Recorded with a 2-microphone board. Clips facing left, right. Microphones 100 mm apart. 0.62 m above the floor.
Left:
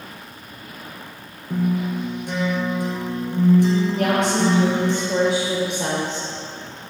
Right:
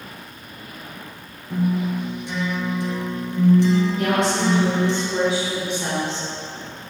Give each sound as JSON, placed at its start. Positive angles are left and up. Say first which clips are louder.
{"t": 1.5, "sound": "a guitar", "louder": "even", "side_deg": 50, "distance_m": 2.0}
{"t": 4.0, "sound": "a woman speaking", "louder": "left 1 dB", "side_deg": 70, "distance_m": 1.7}